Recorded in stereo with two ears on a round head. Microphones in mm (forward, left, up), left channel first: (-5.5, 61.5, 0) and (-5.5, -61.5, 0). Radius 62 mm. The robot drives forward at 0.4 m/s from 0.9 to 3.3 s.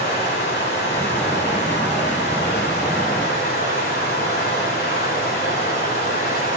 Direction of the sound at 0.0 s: 80° left.